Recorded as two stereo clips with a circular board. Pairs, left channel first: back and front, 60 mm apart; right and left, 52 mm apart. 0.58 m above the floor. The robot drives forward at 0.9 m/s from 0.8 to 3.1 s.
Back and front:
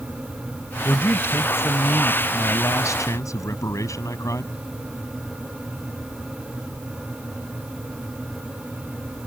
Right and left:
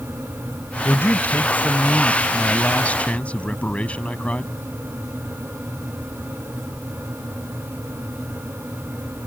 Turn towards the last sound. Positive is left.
turn(degrees=-155)